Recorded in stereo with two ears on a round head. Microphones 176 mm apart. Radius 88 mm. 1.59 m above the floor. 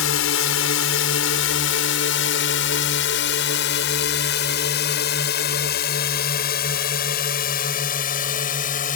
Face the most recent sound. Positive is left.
turn(degrees=45)  # may be behind; listen again after turning